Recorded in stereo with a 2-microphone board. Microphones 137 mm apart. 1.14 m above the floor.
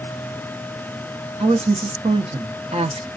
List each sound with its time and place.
1.4 s a woman speaking: 45° right (ahead or behind), 0.8 m